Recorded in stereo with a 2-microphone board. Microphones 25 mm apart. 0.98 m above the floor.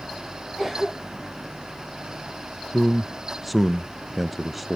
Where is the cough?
Centre (ahead or behind), 0.6 m.